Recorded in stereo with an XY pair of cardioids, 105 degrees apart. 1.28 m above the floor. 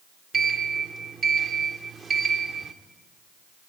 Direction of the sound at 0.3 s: 40° right.